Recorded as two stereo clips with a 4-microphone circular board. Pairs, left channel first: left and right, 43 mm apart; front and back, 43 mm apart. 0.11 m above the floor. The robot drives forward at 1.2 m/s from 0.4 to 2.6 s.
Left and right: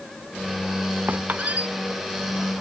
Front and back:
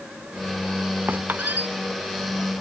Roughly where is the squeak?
Behind right.